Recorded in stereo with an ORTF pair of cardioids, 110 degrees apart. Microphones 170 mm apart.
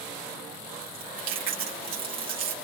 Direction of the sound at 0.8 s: 60° right.